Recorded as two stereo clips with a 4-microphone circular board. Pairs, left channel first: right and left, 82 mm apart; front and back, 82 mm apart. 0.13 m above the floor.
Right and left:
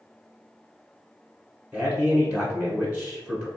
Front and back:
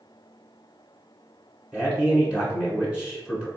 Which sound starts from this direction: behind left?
A man speaking, at 1.7 s.